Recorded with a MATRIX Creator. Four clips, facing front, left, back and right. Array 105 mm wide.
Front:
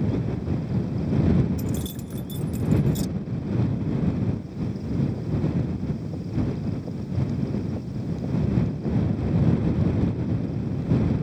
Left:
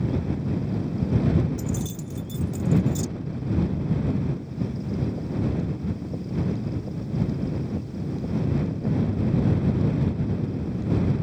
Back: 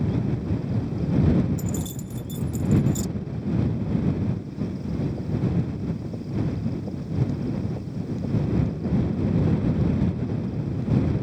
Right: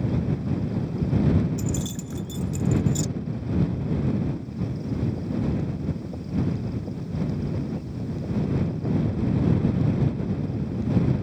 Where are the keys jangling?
60° right.